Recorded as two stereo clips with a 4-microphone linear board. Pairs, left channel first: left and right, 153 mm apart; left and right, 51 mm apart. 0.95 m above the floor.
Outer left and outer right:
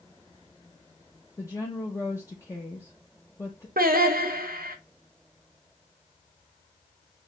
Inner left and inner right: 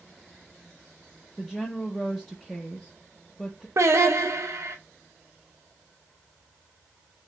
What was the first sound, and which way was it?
A woman speaking, 20° left (ahead or behind).